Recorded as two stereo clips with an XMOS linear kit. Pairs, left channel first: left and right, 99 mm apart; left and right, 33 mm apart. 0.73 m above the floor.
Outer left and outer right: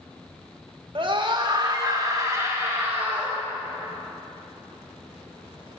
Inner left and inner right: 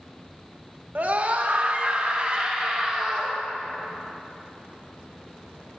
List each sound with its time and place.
0.9 s a scream: 50° right (ahead or behind), 1.6 m; by 3.4 s 20° right (ahead or behind), 2.5 m